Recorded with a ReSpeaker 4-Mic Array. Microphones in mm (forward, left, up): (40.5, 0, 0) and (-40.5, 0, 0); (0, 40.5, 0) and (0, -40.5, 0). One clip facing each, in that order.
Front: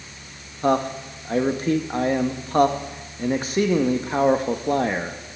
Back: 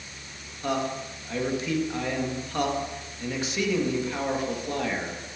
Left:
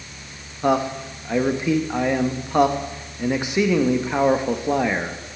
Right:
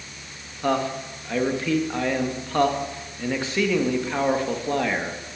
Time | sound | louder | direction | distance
0.6 | a man speaking | front 7 dB, left 3 dB | 25° left | 0.9 m